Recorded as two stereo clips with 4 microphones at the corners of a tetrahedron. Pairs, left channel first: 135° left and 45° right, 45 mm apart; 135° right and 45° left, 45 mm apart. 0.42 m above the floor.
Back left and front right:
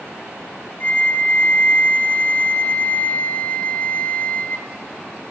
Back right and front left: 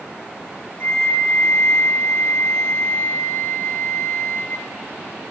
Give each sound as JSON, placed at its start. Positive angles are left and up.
{"t": 0.8, "sound": "a flute", "azimuth_deg": -170, "distance_m": 3.0}